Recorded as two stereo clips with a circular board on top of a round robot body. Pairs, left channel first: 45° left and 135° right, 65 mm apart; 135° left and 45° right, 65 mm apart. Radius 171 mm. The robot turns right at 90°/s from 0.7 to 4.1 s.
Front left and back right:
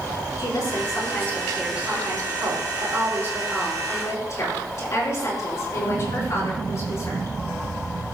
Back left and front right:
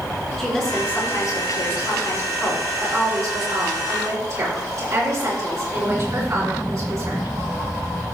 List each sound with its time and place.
0.4 s a woman speaking: 50° left, 5.5 m; by 7.3 s straight ahead, 5.5 m